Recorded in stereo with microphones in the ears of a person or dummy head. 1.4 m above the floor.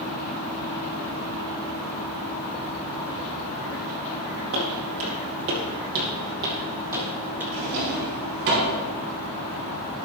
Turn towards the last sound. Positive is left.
turn(degrees=-65)  # may be behind; listen again after turning